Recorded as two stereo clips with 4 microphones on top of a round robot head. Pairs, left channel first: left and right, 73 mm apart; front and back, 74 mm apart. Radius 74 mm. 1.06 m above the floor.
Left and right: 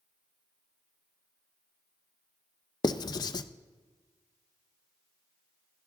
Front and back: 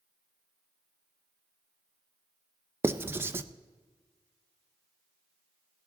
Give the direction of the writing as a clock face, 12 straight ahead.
8 o'clock.